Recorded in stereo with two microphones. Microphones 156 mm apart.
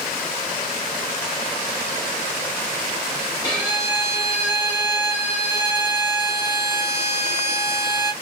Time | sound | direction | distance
3.4 | a violin | 25° left (ahead or behind) | 0.9 m